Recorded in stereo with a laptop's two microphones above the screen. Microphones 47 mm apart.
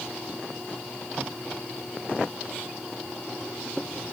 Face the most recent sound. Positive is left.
No sound to turn to.